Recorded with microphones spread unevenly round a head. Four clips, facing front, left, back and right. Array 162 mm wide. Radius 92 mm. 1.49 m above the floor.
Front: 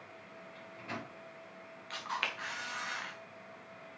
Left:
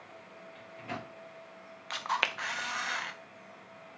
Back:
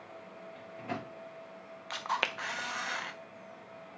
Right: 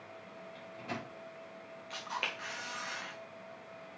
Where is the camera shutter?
160° left, 0.7 m.